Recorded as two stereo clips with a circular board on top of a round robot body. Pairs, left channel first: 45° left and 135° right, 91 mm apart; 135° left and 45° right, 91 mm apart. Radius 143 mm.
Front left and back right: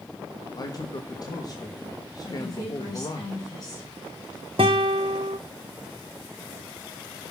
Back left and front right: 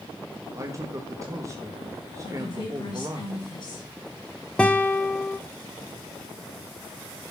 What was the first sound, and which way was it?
A man speaking, 5° left.